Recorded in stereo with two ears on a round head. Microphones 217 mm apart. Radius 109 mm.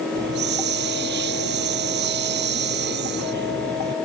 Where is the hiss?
50° right (ahead or behind).